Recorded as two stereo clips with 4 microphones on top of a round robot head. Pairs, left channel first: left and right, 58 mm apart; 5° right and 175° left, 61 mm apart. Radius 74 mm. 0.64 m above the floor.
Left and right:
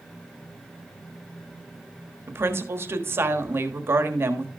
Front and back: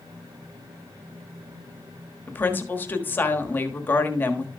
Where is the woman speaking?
55° right, 1.4 m.